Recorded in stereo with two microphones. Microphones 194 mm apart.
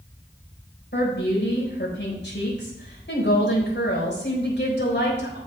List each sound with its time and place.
0.9 s a woman speaking: 65° left (ahead or behind), 4 m